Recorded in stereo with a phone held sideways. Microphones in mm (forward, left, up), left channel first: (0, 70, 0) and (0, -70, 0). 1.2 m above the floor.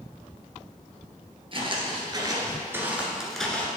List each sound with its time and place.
1.5 s footsteps: 40° right (ahead or behind), 1.5 m; by 3.7 s 10° left (ahead or behind), 1.1 m